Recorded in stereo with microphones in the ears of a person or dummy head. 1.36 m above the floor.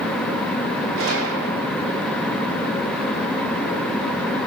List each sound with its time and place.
1.0 s a gunshot: 80° right, 3.5 m